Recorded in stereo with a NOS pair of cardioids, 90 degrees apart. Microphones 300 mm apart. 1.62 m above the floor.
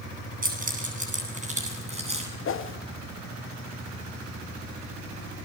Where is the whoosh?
45° left, 1.5 m.